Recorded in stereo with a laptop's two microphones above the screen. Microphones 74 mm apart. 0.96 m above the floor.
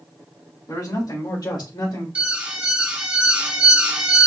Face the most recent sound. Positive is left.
turn(degrees=-15)  # may be behind; listen again after turning